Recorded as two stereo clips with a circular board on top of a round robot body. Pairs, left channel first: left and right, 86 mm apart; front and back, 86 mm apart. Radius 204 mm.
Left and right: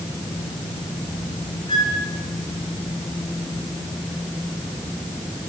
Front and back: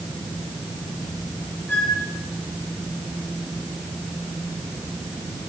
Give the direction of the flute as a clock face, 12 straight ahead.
10 o'clock.